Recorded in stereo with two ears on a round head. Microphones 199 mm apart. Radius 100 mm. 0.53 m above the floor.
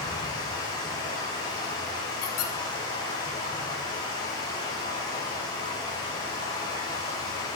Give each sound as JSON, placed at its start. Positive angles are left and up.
{"t": 0.0, "sound": "running water", "side_deg": 20, "distance_m": 2.0}
{"t": 2.2, "sound": "a squeak", "side_deg": 80, "distance_m": 1.0}